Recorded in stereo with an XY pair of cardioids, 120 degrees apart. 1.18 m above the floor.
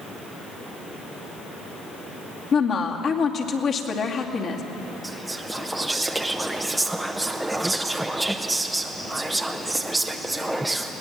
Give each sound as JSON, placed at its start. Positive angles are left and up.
{"t": 2.5, "sound": "a woman speaking", "azimuth_deg": 50, "distance_m": 2.5}
{"t": 5.0, "sound": "whispering", "azimuth_deg": -5, "distance_m": 0.6}